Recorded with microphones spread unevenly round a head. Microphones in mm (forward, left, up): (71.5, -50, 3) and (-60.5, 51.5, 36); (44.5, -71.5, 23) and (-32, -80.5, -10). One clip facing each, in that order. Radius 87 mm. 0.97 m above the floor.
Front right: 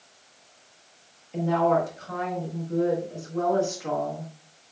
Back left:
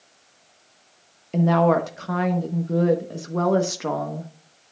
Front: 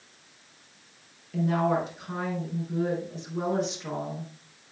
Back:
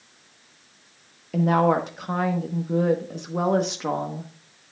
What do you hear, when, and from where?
1.3 s a woman speaking: 165° left, 0.9 m